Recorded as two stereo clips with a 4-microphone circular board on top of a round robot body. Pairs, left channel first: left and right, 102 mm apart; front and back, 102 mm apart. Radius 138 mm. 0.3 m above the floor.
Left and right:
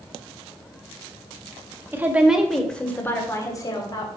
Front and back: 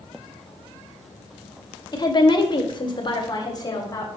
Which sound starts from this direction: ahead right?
A woman speaking, at 1.9 s.